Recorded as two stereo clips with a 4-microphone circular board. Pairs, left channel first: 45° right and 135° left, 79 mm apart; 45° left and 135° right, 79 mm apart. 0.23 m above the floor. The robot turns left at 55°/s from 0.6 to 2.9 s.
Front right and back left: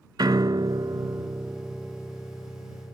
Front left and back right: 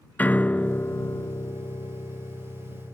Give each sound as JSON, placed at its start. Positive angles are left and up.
{"t": 0.2, "sound": "a piano", "azimuth_deg": 115}